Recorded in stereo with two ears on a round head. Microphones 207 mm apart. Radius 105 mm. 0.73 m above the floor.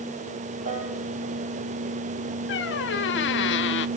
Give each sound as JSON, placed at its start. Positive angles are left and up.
{"t": 0.7, "sound": "a piano", "side_deg": -35, "distance_m": 7.5}
{"t": 2.5, "sound": "a squeak", "side_deg": 55, "distance_m": 0.8}